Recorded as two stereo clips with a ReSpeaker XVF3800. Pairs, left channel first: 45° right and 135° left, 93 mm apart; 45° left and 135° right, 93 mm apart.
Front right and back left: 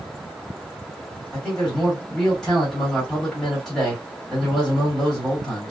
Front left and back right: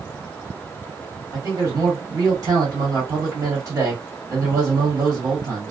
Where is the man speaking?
125° right, 1.7 m.